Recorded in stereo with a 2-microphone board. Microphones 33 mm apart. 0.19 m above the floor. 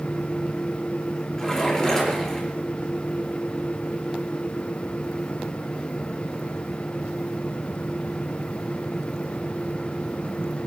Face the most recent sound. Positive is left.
turn(degrees=20)  # may be behind; listen again after turning